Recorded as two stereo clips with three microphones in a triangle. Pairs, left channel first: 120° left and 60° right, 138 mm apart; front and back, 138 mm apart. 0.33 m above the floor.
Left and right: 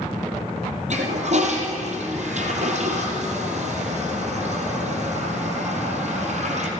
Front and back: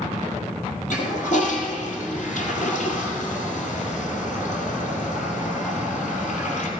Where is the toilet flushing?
25° right, 2 m.